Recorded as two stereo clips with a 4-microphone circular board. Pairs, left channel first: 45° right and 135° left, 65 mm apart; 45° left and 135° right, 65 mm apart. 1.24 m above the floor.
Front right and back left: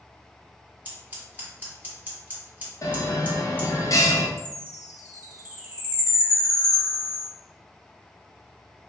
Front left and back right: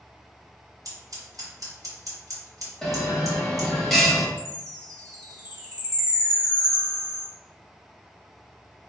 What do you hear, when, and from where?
0.8 s scissors: 160° right, 1.2 m
2.8 s a bell: 40° right, 0.7 m
4.4 s a chime: 160° right, 1.6 m